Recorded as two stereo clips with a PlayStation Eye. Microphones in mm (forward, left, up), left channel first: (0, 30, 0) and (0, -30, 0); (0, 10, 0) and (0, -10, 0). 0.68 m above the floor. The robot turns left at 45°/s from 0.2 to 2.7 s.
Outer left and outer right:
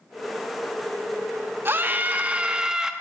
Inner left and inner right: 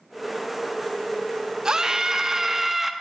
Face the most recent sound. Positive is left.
turn(degrees=-165)